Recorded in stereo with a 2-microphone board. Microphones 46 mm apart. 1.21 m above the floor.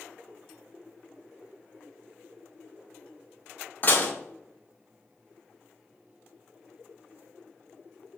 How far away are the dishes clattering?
About 0.7 m.